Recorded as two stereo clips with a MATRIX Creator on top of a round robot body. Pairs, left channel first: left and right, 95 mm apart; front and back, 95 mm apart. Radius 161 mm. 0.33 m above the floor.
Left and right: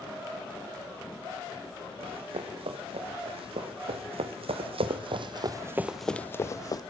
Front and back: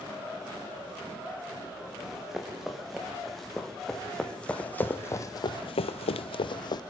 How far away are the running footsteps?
About 4.5 m.